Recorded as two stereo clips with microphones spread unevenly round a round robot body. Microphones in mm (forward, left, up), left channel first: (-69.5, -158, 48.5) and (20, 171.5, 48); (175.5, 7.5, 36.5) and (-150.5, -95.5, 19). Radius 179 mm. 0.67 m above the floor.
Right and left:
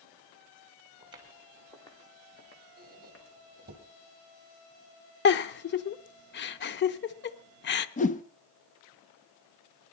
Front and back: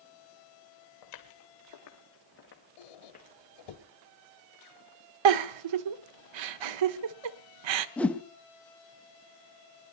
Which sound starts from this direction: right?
A whoosh, at 8.0 s.